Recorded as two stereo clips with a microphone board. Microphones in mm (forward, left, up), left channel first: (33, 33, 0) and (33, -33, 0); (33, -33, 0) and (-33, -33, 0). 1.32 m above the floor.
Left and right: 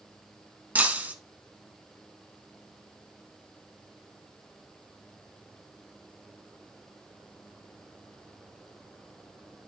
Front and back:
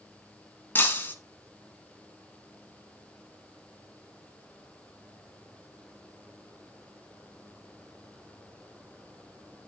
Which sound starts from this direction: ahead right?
Breaking glass, at 0.8 s.